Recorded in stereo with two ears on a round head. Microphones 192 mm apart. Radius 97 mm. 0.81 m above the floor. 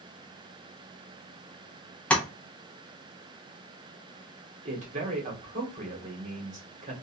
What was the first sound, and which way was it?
Tapping, 5° left (ahead or behind).